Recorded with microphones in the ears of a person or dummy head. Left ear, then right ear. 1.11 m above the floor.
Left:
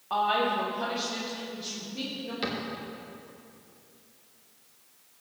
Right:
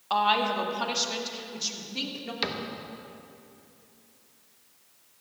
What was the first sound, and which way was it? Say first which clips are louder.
A woman speaking: right 2 dB; 75° right (ahead or behind).